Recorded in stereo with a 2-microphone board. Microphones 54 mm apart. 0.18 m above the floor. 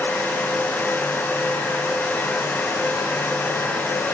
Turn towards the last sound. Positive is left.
No sound to turn to.